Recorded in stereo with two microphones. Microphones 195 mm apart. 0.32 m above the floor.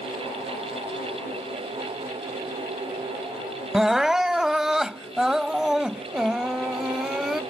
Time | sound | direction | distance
3.7 | crying | centre (ahead or behind) | ?